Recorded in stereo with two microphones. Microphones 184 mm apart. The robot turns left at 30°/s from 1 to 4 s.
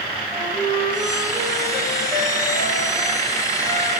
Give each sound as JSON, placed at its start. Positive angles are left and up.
{"t": 0.3, "sound": "a flute", "azimuth_deg": -165, "distance_m": 2.0}